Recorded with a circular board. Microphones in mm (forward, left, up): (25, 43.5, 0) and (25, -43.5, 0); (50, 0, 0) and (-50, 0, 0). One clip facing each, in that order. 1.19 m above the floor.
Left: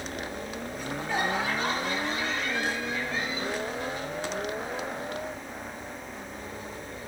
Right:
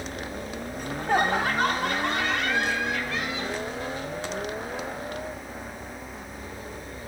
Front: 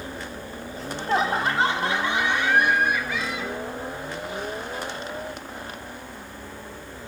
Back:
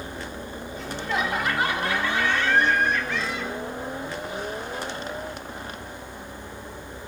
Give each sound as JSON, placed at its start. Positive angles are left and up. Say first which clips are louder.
{"t": 0.8, "sound": "laughter", "louder": "right 6 dB, front 4 dB", "azimuth_deg": -50, "distance_m": 4.0}